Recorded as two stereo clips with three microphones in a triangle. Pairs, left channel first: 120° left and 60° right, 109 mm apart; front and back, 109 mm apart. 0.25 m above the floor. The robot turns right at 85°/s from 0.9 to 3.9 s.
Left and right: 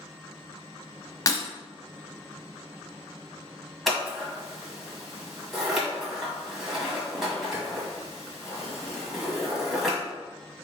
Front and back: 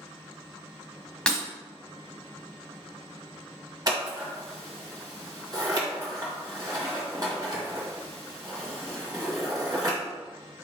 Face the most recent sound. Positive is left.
turn(degrees=-145)